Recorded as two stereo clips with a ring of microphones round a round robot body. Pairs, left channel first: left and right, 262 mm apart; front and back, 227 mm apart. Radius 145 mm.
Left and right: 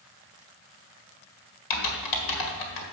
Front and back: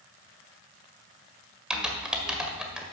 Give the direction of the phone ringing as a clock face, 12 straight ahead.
I don't hear a phone ringing.